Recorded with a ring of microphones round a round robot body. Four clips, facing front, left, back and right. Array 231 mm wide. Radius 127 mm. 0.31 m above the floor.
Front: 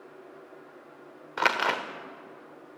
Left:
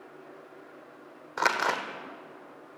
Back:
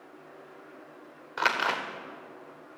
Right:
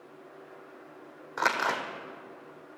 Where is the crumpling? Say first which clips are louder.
Left 1 dB, front 1 dB; 20° left, 1.3 m.